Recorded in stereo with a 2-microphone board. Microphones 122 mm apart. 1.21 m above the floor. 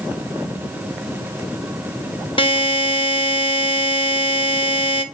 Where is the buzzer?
45° left (ahead or behind), 1.0 m.